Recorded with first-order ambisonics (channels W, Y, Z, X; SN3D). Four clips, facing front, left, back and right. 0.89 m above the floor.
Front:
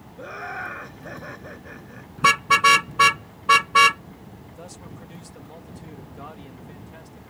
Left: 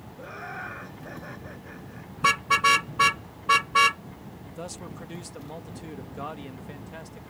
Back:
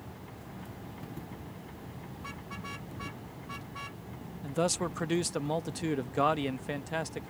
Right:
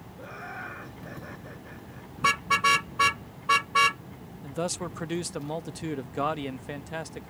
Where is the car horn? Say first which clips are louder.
Left 2 dB, front 28 dB; 5° left.